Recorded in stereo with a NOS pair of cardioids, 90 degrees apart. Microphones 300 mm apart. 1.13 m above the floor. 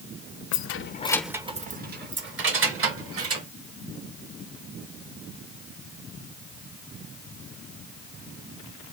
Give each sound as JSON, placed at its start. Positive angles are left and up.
{"t": 0.5, "sound": "keys jangling", "azimuth_deg": 70, "distance_m": 0.6}